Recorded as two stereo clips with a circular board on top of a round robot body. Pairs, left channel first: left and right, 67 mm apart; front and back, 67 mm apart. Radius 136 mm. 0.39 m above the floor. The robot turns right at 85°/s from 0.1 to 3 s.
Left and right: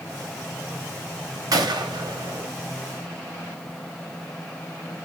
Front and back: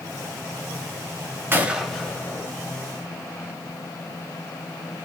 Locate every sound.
1.5 s a gunshot: 120° right, 0.8 m; by 2.5 s 35° right, 0.8 m